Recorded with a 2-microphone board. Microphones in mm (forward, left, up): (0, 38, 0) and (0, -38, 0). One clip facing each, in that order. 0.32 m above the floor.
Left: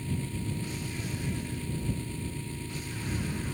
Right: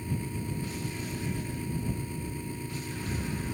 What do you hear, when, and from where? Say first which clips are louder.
0.0 s an engine running: even; 15° right (ahead or behind)